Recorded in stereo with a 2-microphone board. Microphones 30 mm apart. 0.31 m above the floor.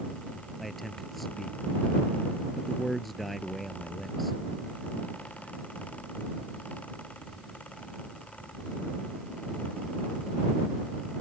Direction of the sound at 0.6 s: 5° left (ahead or behind).